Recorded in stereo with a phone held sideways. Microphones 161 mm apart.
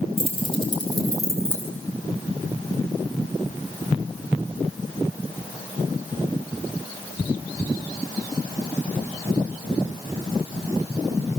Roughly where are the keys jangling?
Left.